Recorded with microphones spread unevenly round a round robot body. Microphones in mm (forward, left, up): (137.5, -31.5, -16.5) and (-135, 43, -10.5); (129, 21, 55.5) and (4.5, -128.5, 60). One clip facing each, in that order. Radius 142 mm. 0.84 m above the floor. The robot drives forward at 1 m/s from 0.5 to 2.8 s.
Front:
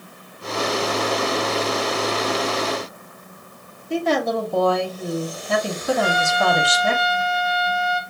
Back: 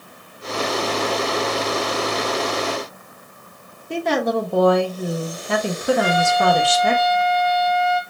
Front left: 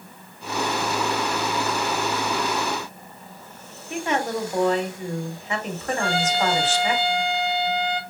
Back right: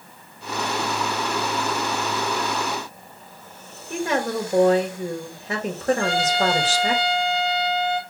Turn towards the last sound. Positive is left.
turn(degrees=-160)